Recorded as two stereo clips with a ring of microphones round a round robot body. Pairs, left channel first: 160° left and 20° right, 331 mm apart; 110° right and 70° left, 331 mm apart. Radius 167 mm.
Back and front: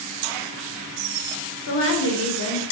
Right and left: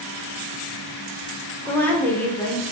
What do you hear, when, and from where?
1.7 s a woman speaking: 165° left, 0.9 m